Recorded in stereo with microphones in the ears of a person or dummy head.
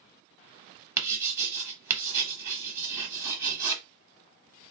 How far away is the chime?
I don't hear a chime.